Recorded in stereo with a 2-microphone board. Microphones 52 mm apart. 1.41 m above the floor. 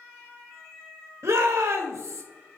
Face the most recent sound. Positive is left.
turn(degrees=-65)  # may be behind; listen again after turning